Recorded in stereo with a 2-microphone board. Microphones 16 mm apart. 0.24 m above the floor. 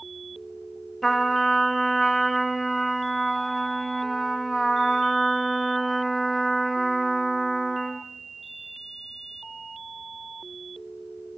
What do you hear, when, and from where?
1.0 s a trumpet: 20° left (ahead or behind), 2.5 m